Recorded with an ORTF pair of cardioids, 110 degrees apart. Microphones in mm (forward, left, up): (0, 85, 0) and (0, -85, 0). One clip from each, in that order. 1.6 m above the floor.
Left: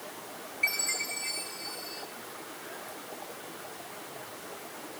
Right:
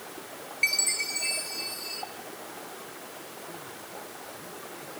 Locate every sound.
0.6 s a chime: 60° right, 2.0 m